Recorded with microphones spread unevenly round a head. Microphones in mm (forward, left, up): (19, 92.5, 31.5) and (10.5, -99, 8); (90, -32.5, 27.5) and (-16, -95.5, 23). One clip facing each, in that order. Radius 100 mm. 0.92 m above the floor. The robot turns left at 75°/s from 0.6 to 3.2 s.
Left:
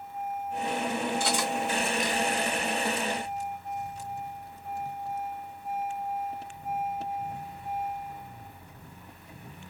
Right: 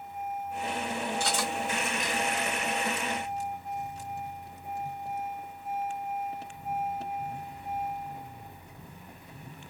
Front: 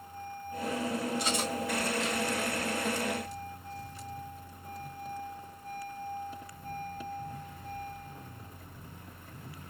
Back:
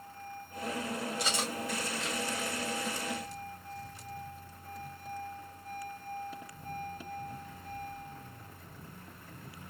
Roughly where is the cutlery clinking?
Behind.